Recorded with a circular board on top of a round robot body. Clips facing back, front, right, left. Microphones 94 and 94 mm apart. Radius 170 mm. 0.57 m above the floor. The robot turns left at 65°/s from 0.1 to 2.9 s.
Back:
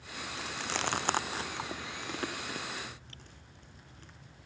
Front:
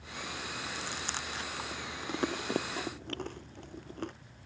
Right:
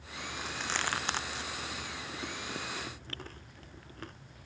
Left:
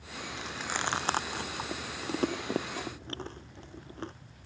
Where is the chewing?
170° right; by 4.1 s 30° left.